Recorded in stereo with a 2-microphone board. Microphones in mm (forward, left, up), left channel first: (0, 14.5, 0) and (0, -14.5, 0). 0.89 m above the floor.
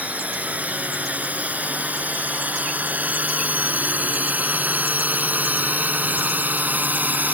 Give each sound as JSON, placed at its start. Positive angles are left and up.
{"t": 0.0, "sound": "a drone", "side_deg": -60}